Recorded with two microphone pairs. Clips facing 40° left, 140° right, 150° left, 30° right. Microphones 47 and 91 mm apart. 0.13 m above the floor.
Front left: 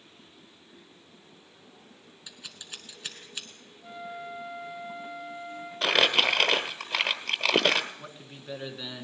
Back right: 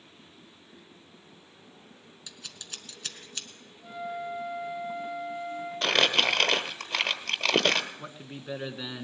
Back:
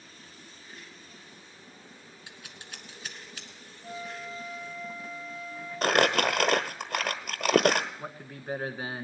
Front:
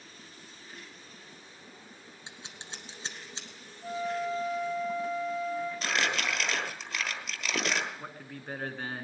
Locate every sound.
2.3 s scissors: 30° right, 1.4 m
3.8 s a flute: 45° right, 4 m
5.8 s crumpling: 125° left, 1.1 m
8.0 s a man speaking: 155° right, 1.1 m